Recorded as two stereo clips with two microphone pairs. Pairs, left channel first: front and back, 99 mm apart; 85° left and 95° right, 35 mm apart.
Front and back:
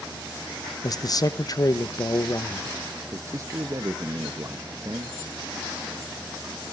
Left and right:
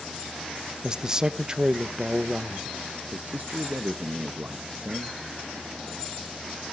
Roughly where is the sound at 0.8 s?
Ahead right.